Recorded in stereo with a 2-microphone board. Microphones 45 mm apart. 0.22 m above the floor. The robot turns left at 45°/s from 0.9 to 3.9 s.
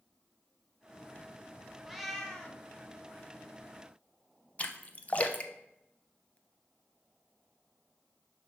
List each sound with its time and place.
1.9 s a cat meowing: 170° right, 1.0 m; by 2.6 s 155° left, 1.0 m
4.6 s a splash: 30° left (ahead or behind), 0.6 m